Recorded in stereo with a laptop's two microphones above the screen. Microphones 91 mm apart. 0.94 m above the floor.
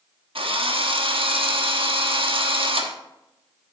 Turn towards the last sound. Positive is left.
turn(degrees=-80)